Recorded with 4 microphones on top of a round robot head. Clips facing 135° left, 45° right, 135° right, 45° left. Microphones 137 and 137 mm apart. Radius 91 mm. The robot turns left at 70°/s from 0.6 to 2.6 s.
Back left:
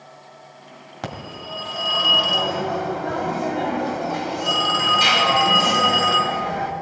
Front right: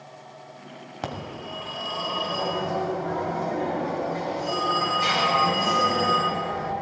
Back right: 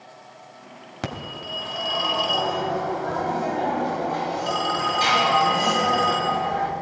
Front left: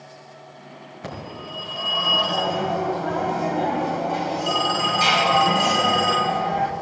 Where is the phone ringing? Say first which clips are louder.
Back left 1 dB, back right 2 dB; 130° right, 2 m; by 6.7 s 120° left, 2 m.